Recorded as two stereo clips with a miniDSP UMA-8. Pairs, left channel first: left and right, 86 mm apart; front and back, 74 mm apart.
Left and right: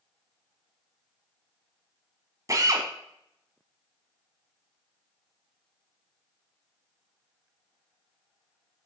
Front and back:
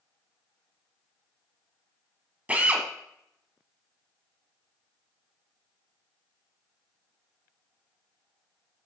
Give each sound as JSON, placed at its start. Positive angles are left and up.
{"t": 2.5, "sound": "a drill", "azimuth_deg": -115, "distance_m": 1.2}